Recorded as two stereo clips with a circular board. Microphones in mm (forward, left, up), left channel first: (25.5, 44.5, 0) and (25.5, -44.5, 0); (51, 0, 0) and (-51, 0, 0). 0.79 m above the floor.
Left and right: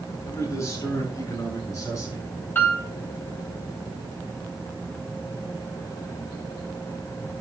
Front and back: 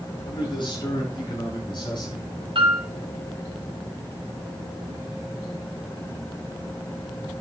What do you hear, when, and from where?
0.2 s a man speaking: 35° left, 9.5 m; by 2.4 s 40° left, 7.5 m
2.5 s a piano: 155° left, 5 m